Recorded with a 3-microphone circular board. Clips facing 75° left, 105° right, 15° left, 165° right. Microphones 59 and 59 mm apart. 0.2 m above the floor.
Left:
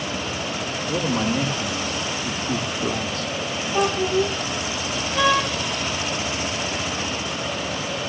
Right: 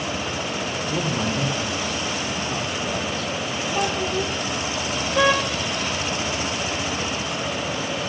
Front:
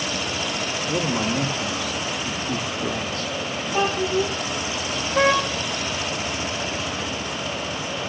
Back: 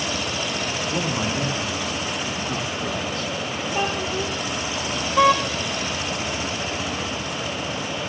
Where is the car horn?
30° right, 10 m.